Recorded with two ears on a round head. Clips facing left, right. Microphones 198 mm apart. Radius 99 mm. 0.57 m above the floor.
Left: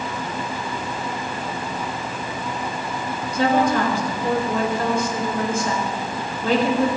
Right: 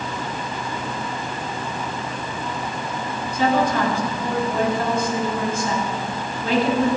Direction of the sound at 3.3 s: 55° left (ahead or behind).